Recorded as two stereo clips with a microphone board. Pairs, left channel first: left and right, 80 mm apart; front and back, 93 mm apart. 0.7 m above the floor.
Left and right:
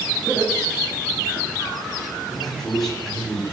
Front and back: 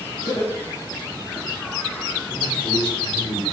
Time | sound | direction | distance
0.3 | laughter | straight ahead | 3.5 m
2.3 | a man speaking | 5° left | 6.5 m